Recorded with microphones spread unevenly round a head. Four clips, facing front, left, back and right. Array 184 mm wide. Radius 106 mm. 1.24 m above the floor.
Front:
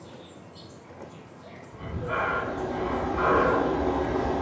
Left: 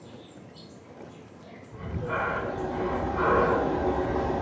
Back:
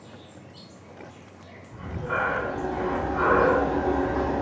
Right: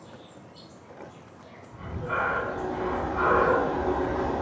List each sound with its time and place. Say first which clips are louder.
0.0 s an insect: left 1 dB, front 1 dB; 60° left, 2.5 m
1.7 s breathing: right 1 dB, back 1 dB; 90° left, 2 m